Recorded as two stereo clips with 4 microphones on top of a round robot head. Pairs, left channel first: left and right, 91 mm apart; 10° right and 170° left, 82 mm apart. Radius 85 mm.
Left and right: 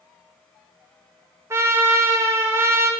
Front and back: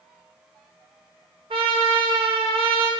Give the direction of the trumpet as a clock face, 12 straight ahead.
5 o'clock.